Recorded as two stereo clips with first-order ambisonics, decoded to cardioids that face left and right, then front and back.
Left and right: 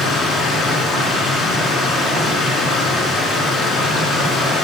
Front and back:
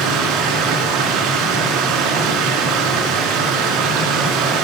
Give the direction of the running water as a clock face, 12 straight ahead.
7 o'clock.